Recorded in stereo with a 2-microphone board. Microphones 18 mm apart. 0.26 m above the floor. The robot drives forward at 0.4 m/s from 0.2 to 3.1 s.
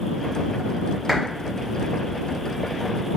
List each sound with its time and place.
1.1 s a clap: 20° right (ahead or behind), 1.6 m